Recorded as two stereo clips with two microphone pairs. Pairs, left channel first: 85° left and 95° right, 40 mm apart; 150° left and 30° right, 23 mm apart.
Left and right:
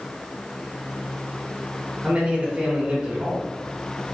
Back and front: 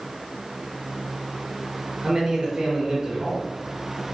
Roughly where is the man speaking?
Right.